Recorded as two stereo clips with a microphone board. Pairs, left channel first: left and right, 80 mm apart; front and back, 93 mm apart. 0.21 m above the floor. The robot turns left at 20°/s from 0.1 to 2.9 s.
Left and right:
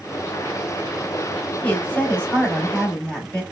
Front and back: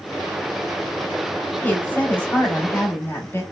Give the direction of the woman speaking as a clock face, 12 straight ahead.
10 o'clock.